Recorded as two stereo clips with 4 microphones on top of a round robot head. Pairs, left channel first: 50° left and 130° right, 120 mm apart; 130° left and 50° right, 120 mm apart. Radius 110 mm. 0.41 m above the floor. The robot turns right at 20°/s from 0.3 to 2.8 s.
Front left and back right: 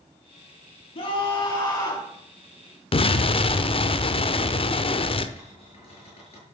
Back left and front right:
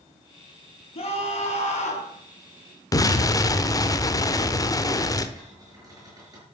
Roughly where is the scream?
Left.